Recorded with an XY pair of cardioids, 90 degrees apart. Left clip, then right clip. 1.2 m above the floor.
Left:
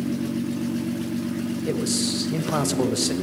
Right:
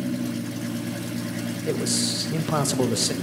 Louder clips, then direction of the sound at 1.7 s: Right 1 dB; 5° right.